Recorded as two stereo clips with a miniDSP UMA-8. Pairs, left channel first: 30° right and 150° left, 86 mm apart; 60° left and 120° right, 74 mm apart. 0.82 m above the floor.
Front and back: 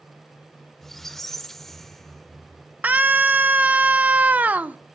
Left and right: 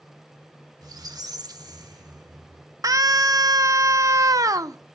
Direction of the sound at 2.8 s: 145° right.